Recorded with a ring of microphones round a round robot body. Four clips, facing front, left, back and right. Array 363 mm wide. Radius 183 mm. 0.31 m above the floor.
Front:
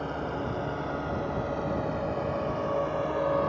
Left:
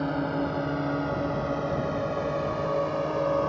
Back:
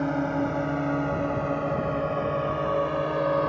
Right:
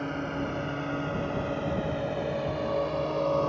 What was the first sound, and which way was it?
A drone, 160° left.